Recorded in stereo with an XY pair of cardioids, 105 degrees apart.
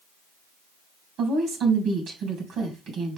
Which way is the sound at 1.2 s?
70° right.